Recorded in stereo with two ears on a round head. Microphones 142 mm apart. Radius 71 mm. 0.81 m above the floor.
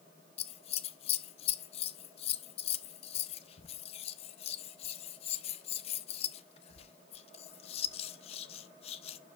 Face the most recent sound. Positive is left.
turn(degrees=40)  # may be behind; listen again after turning